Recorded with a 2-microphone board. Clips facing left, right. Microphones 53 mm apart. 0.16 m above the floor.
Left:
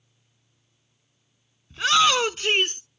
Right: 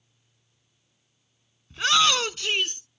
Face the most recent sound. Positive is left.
turn(degrees=40)  # may be behind; listen again after turning